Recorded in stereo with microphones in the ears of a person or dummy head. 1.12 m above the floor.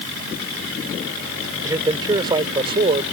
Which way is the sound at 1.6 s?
20° right (ahead or behind).